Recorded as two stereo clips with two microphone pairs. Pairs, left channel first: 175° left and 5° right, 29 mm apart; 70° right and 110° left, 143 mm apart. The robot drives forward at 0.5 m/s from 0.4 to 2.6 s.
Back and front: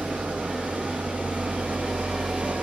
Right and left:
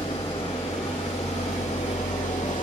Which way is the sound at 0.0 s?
25° right.